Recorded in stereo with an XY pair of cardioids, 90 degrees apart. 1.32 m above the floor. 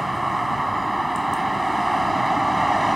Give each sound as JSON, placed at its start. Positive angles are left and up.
{"t": 0.0, "sound": "a vehicle", "azimuth_deg": -10}